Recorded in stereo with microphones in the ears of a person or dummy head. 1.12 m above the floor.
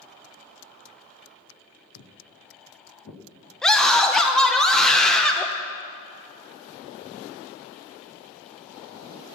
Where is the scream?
5° left (ahead or behind), 0.9 m.